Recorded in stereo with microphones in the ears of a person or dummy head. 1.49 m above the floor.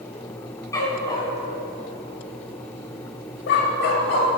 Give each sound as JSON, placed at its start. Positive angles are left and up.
{"t": 0.7, "sound": "a dog barking", "side_deg": 20, "distance_m": 3.5}